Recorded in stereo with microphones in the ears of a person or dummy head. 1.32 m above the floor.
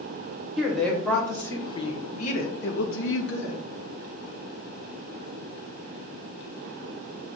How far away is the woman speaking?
About 1.2 m.